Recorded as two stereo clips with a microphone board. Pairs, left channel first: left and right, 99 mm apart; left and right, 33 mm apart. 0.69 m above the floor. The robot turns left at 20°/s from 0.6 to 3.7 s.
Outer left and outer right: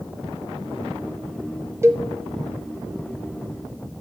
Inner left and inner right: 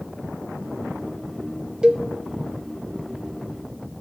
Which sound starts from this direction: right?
A cowbell, at 1.8 s.